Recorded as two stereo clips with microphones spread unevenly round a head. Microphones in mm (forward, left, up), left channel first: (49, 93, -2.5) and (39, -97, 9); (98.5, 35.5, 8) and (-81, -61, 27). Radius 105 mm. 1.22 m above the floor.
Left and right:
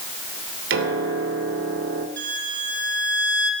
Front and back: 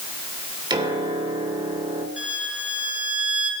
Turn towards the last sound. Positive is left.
turn(degrees=-70)